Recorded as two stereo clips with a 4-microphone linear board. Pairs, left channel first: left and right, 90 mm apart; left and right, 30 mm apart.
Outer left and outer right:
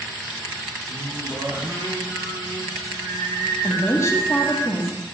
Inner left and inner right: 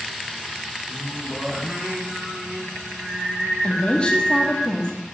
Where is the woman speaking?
35° left (ahead or behind), 1.3 m.